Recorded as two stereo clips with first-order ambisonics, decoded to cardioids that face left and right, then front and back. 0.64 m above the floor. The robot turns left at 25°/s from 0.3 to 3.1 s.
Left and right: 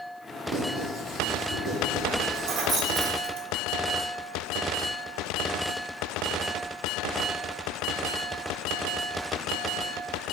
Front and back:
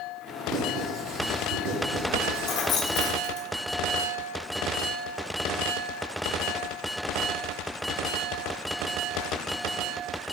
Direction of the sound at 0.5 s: 135° right.